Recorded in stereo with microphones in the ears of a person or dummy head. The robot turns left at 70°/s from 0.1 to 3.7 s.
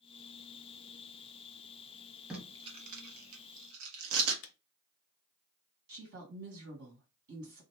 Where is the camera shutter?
65° left (ahead or behind), 0.6 m.